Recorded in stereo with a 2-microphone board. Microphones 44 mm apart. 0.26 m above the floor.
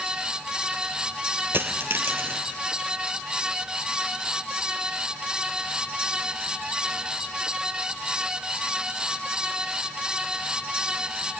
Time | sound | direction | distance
1.5 | a dropped coin | 65° right (ahead or behind) | 1.9 m